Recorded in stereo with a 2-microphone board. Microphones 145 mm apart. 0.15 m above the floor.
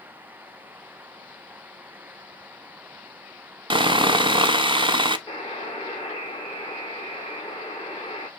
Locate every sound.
3.7 s sawing: 35° right (ahead or behind), 0.5 m
5.3 s a buzzer: 35° left (ahead or behind), 1.3 m